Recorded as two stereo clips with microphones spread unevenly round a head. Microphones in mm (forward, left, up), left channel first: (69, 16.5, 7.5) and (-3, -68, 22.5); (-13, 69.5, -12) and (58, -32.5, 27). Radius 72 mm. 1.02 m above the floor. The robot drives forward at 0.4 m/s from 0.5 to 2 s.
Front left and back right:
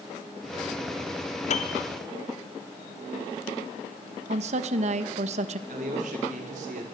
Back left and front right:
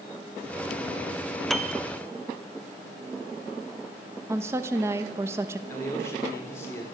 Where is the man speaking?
165° right, 3 m.